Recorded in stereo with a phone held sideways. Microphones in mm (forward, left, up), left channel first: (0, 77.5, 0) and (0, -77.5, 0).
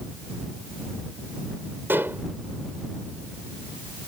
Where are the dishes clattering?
15° right (ahead or behind).